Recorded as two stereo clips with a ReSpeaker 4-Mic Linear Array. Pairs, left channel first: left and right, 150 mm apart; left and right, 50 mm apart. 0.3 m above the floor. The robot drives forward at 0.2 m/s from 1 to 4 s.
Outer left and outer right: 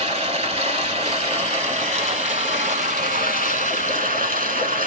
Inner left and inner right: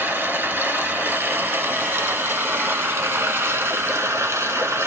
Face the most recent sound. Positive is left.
turn(degrees=-65)  # may be behind; listen again after turning